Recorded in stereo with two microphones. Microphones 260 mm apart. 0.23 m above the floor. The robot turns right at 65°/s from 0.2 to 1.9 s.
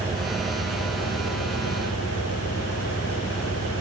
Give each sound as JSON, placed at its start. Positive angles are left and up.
{"t": 0.0, "sound": "an engine running", "azimuth_deg": 0, "distance_m": 4.5}